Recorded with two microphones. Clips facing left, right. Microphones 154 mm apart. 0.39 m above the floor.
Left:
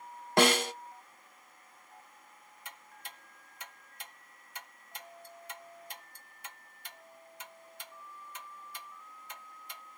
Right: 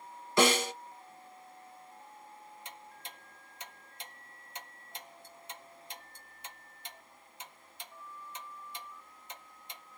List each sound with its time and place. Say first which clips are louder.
0.4 s a snare drum: left 1 dB; 60° left (ahead or behind), 0.9 m
2.6 s ticking: right 2 dB; 20° right (ahead or behind), 1.2 m